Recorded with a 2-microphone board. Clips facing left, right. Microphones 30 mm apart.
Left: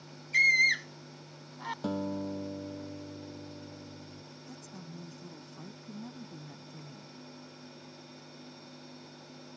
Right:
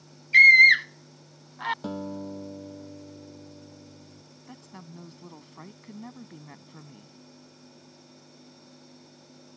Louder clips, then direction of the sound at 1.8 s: Even; 5° left (ahead or behind).